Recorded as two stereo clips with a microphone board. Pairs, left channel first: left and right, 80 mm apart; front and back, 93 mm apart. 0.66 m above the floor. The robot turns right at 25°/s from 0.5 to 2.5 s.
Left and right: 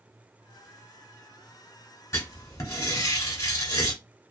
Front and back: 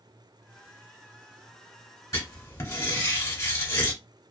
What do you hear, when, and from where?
2.1 s writing: 45° left, 1.0 m; by 3.9 s 55° left, 1.0 m